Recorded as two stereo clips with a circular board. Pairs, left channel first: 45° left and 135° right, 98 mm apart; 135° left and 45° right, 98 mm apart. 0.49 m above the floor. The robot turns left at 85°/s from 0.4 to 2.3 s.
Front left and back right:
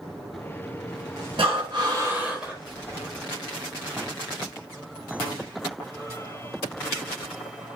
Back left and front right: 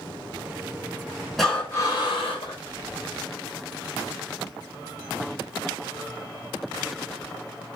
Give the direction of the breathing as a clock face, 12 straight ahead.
5 o'clock.